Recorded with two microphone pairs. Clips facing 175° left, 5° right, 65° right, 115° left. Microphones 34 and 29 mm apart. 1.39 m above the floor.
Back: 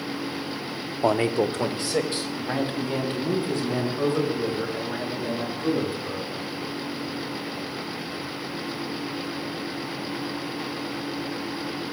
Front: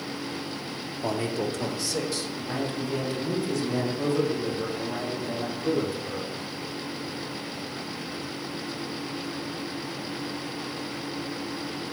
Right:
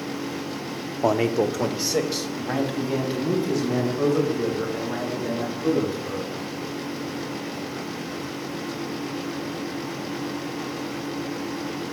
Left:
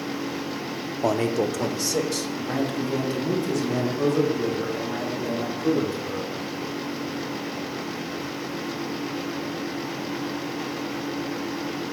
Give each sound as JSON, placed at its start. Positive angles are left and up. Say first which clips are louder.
{"t": 1.0, "sound": "a man speaking", "louder": "back 7 dB, right 2 dB", "azimuth_deg": -140, "distance_m": 0.7}